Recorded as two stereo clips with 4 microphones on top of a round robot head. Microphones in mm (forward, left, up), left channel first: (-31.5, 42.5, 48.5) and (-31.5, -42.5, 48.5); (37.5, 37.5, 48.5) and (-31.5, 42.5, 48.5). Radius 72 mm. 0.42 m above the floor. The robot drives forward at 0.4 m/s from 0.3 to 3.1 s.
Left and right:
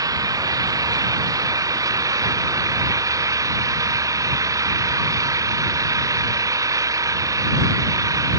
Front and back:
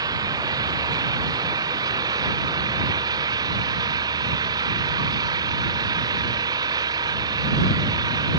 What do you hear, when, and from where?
0.0 s an engine running: 140° right